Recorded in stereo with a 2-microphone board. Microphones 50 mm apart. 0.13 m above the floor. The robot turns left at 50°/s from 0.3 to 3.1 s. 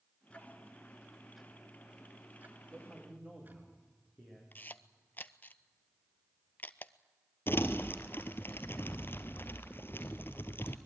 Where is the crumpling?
50° left (ahead or behind), 1.2 m.